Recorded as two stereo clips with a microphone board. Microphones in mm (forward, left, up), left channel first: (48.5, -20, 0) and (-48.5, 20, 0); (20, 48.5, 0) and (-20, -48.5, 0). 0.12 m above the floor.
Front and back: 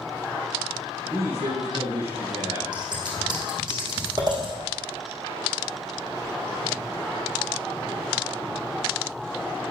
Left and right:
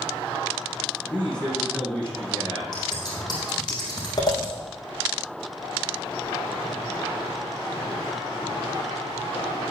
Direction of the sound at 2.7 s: 115° left.